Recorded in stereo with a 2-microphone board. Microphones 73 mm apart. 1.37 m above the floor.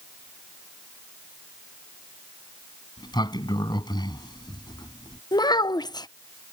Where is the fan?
No fan in this recording.